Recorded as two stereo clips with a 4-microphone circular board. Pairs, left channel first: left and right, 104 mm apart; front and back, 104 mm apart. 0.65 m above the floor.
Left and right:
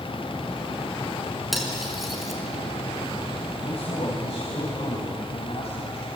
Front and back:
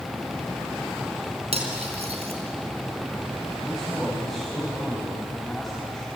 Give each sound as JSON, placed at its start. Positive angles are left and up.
{"t": 1.5, "sound": "cutlery clinking", "azimuth_deg": 180, "distance_m": 4.0}
{"t": 3.6, "sound": "a man speaking", "azimuth_deg": 90, "distance_m": 4.0}